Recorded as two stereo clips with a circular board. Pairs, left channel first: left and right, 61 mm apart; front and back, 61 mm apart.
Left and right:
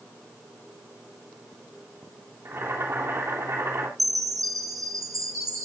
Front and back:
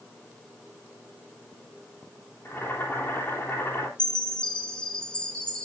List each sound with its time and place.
2.5 s boiling: 50° right, 3.5 m
4.0 s a chime: 75° right, 2.5 m